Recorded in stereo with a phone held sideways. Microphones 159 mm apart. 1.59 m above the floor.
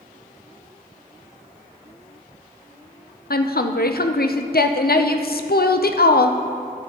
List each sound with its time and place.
3.3 s a woman speaking: 75° left (ahead or behind), 0.6 m